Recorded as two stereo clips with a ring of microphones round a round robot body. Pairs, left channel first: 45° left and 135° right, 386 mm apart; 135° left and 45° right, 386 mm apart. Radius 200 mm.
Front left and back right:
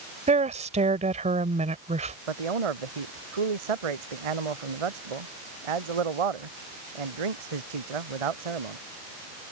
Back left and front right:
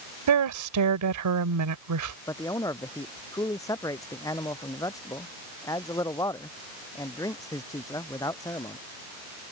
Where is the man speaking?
145° right.